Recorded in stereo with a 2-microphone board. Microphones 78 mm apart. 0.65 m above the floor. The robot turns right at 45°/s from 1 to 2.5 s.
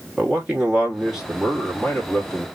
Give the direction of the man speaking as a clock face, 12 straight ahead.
12 o'clock.